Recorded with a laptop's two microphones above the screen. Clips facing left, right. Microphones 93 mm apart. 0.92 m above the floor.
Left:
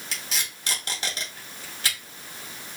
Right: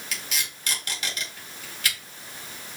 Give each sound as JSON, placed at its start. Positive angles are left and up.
{"t": 0.1, "sound": "tape being pulled", "side_deg": 35, "distance_m": 1.2}